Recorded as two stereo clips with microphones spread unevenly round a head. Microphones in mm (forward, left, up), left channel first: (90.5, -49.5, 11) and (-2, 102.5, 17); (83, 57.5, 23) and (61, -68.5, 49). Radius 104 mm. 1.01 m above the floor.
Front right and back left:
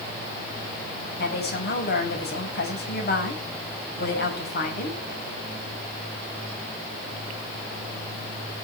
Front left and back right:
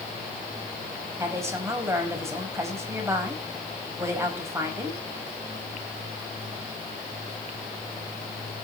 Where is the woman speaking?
30° right, 5.5 m.